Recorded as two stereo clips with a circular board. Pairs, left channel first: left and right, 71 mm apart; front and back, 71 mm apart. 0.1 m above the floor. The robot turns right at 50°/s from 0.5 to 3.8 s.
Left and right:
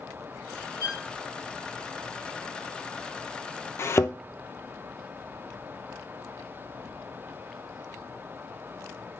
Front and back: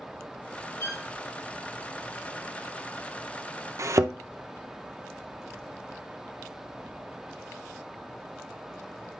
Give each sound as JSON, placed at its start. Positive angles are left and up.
{"t": 0.8, "sound": "a violin", "azimuth_deg": -60, "distance_m": 3.5}
{"t": 3.8, "sound": "a thud", "azimuth_deg": 140, "distance_m": 0.6}